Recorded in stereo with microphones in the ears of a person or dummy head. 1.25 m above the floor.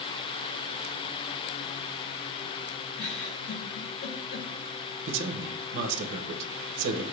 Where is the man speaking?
60° right (ahead or behind), 0.6 m.